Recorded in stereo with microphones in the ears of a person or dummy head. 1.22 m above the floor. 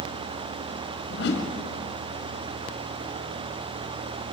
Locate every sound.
1.1 s a whoosh: 70° left (ahead or behind), 5 m